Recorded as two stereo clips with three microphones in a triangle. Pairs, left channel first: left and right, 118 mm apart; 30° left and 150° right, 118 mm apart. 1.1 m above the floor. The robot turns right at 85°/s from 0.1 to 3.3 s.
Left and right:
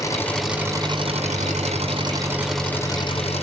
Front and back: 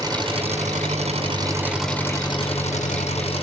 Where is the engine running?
150° left, 5 m; by 3.4 s 65° left, 5 m.